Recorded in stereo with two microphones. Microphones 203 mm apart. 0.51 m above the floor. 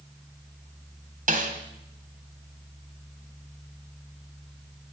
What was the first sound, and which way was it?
A snare drum, 45° right (ahead or behind).